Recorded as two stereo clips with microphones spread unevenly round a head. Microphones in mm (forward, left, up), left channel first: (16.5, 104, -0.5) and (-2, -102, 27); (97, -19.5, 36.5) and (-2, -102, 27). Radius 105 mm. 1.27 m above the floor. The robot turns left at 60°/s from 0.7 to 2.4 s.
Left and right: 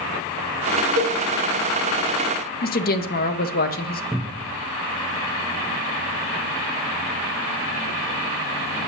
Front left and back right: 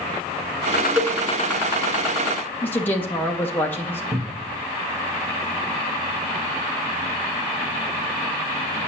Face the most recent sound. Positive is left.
turn(degrees=175)